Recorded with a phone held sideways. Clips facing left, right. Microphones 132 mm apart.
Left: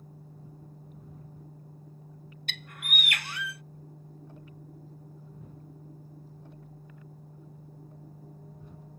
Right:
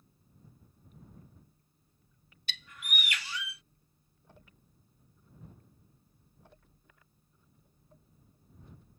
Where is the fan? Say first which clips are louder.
Left 13 dB; 80° left.